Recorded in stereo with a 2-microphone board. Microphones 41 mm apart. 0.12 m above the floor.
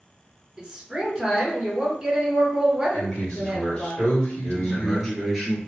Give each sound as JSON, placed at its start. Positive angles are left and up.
{"t": 0.6, "sound": "a woman speaking", "side_deg": -15, "distance_m": 1.4}
{"t": 2.9, "sound": "a man speaking", "side_deg": 15, "distance_m": 1.8}
{"t": 4.4, "sound": "a man speaking", "side_deg": -5, "distance_m": 1.5}